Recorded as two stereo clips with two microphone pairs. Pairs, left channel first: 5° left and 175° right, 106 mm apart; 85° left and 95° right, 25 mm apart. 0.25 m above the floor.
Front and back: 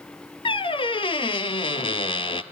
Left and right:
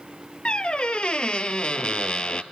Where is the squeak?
40° left, 0.7 m.